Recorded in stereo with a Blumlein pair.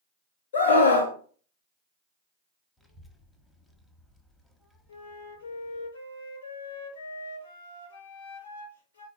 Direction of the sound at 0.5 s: 65° left.